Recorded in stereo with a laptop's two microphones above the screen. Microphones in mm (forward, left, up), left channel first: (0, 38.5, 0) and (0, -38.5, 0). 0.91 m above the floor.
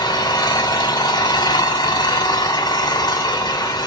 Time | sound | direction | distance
0.0 | an engine running | 65° left (ahead or behind) | 1.0 m